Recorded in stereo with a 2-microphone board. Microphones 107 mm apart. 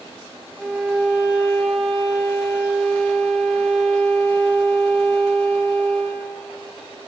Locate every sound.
0.6 s a violin: 5° right (ahead or behind), 1.9 m